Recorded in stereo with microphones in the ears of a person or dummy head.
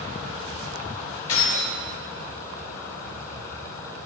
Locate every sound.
1.3 s keys jangling: 75° left (ahead or behind), 5.5 m